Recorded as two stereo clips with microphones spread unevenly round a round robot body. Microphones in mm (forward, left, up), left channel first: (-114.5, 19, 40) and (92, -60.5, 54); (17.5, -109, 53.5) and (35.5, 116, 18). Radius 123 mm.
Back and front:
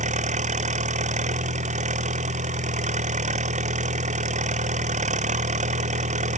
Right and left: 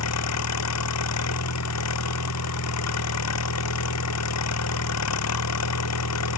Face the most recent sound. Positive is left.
turn(degrees=-80)